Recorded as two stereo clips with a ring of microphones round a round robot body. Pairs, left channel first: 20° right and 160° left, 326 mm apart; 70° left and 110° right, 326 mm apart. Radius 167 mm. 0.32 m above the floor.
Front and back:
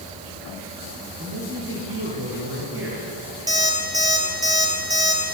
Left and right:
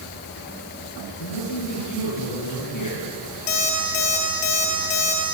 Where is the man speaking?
105° left, 7 m.